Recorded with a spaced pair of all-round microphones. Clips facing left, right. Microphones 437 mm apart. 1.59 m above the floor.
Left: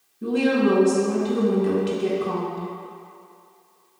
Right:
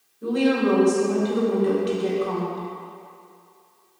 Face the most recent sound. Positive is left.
turn(degrees=45)  # may be behind; listen again after turning